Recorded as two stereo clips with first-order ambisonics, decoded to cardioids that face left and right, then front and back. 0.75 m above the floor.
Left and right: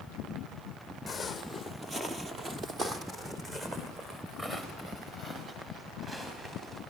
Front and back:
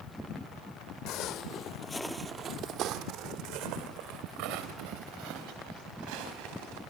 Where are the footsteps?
10° left, 1.4 m; by 6.8 s 165° right, 5.5 m.